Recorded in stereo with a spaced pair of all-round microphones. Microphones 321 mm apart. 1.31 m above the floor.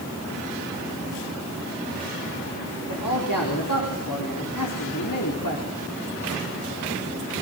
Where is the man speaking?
85° left, 4.5 m.